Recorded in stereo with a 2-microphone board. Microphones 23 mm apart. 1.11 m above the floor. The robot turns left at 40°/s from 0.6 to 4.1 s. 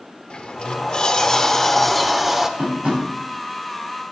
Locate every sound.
0.3 s a sliding door: 55° left, 1.0 m; by 2.5 s 20° right, 1.0 m
2.6 s tapping: 75° right (ahead or behind), 7.5 m; by 3.0 s 85° right, 7.5 m